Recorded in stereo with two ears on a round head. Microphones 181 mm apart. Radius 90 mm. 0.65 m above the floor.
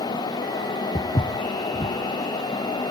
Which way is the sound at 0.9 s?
20° left (ahead or behind).